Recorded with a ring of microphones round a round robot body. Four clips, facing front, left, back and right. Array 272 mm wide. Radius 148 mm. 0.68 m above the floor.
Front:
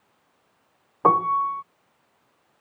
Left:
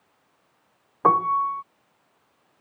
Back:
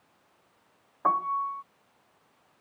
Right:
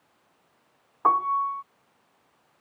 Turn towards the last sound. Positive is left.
turn(degrees=35)